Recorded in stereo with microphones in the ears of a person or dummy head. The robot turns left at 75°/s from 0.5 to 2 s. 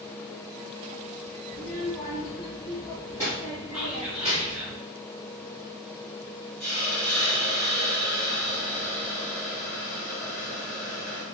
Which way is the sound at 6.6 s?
5° left (ahead or behind).